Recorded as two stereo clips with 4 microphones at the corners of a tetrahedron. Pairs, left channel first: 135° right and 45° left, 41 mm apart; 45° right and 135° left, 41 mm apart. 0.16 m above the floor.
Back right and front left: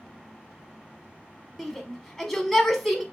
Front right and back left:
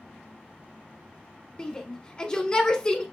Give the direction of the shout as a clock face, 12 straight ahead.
2 o'clock.